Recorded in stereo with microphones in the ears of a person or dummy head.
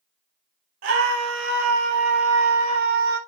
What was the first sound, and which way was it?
A scream, 60° right (ahead or behind).